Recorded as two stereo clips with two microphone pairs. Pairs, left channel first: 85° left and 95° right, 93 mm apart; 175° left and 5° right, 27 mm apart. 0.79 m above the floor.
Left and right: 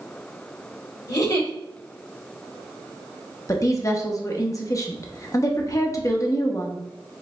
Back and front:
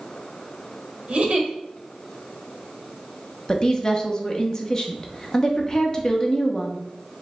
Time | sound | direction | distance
1.1 | a giggle | 45° left | 1.3 m
3.5 | a woman speaking | 125° left | 0.9 m